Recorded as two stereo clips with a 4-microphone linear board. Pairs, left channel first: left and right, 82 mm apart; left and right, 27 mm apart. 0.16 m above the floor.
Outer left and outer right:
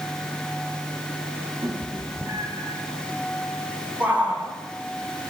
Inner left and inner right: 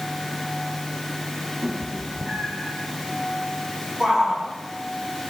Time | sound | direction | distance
1.6 | a cat meowing | 50° right (ahead or behind) | 9.5 m
4.0 | a shout | 15° right (ahead or behind) | 7 m